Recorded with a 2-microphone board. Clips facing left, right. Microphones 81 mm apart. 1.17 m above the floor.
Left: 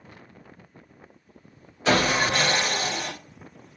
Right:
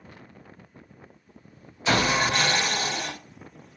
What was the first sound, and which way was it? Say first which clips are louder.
Sawing: left 1 dB; 55° left (ahead or behind).